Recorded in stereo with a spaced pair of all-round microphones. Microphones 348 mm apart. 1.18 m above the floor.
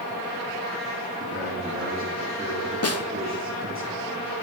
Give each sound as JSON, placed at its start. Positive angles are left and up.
{"t": 1.2, "sound": "a man speaking", "side_deg": -35, "distance_m": 2.5}
{"t": 2.8, "sound": "a snare drum", "side_deg": 45, "distance_m": 0.6}